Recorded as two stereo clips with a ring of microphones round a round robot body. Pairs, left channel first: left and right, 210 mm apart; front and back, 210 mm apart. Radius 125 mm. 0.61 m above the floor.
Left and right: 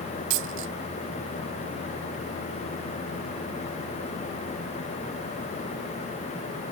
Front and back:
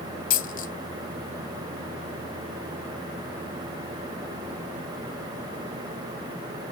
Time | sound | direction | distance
0.3 | a dropped coin | 50° right | ?